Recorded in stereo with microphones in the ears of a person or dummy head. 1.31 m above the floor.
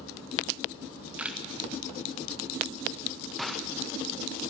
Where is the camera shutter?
5° right (ahead or behind), 1.5 m.